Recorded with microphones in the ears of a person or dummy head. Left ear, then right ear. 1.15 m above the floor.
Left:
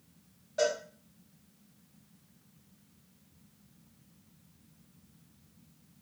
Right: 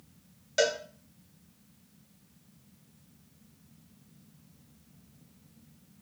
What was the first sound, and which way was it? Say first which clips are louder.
A cowbell: right 3 dB; 60° right (ahead or behind).